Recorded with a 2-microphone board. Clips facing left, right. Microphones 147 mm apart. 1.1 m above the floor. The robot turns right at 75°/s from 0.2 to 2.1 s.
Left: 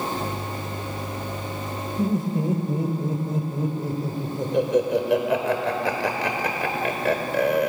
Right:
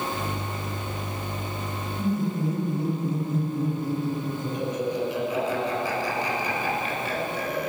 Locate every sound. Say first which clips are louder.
2.0 s laughter: left 3 dB; 80° left, 4 m; by 7.7 s 90° left, 4 m